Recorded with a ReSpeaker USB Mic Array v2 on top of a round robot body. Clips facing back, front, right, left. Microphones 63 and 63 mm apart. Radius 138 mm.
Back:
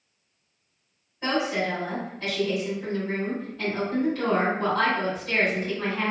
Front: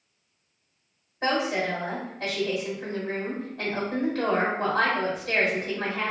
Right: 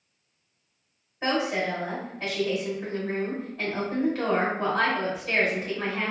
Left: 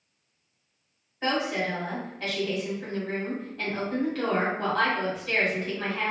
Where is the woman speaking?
15° right, 1.8 m.